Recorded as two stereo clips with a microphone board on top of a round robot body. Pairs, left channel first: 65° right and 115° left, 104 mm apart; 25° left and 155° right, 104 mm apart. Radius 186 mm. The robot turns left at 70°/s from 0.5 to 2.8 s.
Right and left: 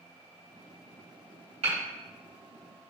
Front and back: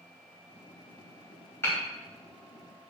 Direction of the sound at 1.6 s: 90° left.